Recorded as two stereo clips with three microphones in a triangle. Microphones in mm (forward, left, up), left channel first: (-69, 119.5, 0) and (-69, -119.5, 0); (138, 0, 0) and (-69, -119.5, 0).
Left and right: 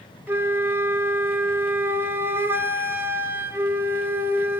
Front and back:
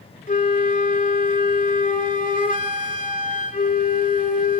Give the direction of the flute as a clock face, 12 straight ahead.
12 o'clock.